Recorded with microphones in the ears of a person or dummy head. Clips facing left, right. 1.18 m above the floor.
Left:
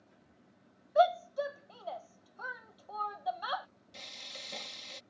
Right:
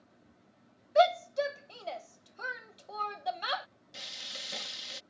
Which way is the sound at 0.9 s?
25° right (ahead or behind).